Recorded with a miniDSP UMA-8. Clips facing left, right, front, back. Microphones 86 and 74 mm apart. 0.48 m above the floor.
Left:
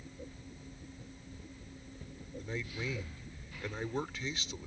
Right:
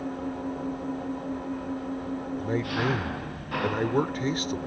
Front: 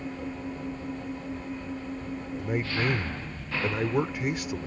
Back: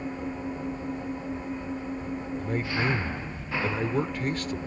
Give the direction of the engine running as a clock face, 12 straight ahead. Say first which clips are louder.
Right 18 dB, back 2 dB; 3 o'clock.